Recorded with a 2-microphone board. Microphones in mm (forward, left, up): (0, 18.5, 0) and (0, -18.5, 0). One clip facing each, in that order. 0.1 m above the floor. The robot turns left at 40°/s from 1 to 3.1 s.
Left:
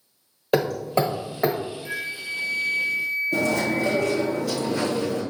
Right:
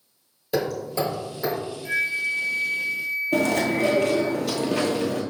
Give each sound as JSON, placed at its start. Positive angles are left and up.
{"t": 0.5, "sound": "hammering", "side_deg": 45, "distance_m": 1.4}
{"t": 1.9, "sound": "a flute", "azimuth_deg": 180, "distance_m": 0.8}
{"t": 3.3, "sound": "chewing", "side_deg": -60, "distance_m": 1.1}